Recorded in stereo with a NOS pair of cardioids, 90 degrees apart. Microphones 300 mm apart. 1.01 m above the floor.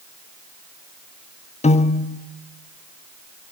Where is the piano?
20° left, 0.9 m.